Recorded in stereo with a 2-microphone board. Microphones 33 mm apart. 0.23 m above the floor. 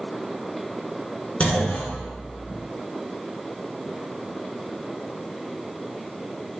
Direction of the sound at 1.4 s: 35° left (ahead or behind).